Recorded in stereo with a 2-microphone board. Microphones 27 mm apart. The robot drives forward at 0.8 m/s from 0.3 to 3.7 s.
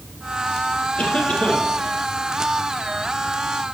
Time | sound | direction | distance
1.0 | a cough | 55° left (ahead or behind) | 5 m